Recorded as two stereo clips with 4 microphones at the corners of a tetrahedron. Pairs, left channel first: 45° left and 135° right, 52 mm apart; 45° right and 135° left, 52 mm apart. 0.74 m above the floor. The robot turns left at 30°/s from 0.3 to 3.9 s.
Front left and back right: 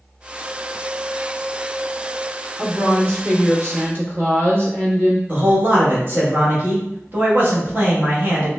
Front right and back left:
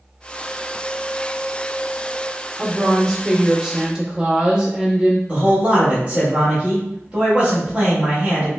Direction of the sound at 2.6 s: 115° right.